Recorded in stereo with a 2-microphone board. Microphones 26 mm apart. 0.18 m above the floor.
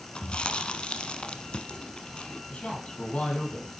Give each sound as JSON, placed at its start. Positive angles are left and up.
{"t": 0.1, "sound": "chewing", "side_deg": 40, "distance_m": 0.9}
{"t": 2.5, "sound": "a man speaking", "side_deg": 60, "distance_m": 4.5}